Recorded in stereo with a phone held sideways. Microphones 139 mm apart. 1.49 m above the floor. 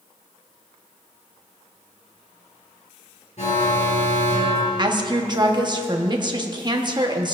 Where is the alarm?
55° left (ahead or behind), 3.5 m.